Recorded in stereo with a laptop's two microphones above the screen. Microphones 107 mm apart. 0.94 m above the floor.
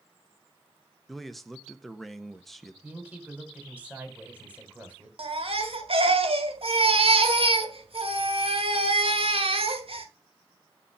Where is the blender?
No blender in this recording.